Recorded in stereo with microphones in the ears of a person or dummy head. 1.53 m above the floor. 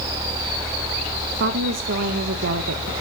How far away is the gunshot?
I don't hear a gunshot.